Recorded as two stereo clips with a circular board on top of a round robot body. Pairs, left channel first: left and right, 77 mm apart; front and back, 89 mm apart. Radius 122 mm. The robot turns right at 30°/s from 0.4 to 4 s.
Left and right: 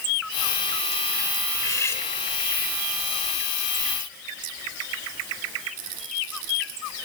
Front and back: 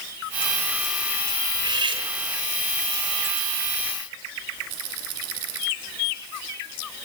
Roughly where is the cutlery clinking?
Behind left.